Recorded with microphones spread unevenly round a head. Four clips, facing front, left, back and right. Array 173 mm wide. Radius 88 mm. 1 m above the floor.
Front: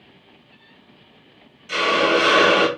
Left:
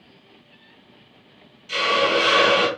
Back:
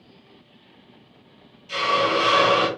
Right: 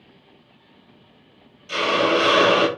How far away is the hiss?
About 1.1 m.